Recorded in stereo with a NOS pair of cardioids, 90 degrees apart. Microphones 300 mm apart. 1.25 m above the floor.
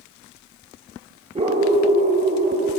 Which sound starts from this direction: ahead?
A dog barking, at 1.4 s.